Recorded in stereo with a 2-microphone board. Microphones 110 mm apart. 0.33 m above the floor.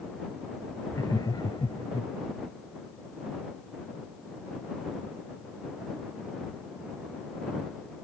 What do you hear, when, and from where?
0.9 s laughter: 35° left (ahead or behind); by 2.1 s 50° left (ahead or behind)